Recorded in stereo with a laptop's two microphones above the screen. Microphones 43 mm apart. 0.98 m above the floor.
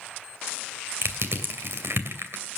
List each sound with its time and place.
1.0 s crushing: 65° right (ahead or behind), 2.5 m